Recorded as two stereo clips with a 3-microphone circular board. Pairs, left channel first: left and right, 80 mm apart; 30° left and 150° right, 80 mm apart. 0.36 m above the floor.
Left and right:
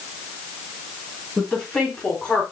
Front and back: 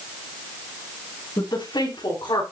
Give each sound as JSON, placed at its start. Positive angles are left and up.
{"t": 1.4, "sound": "a woman speaking", "azimuth_deg": 5, "distance_m": 9.0}